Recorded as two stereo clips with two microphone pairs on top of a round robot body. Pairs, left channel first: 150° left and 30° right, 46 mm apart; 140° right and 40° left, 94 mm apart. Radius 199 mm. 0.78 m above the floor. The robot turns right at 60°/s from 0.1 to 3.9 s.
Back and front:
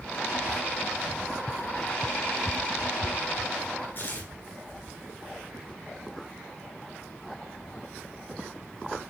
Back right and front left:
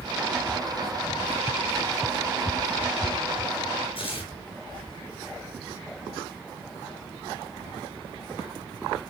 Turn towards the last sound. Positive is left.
turn(degrees=-170)